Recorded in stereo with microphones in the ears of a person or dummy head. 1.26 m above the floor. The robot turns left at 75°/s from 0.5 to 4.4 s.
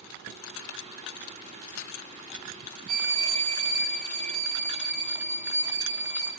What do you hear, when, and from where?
2.9 s a violin: 40° right, 1.8 m; by 6.3 s 155° right, 1.8 m